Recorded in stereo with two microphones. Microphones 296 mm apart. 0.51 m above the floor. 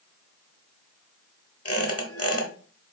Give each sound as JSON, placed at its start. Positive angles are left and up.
{"t": 1.6, "sound": "a squeak", "side_deg": 50, "distance_m": 0.9}